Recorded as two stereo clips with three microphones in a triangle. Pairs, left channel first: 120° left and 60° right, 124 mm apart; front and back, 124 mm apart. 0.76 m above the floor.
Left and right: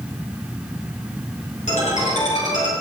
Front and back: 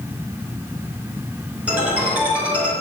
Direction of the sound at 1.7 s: 100° left.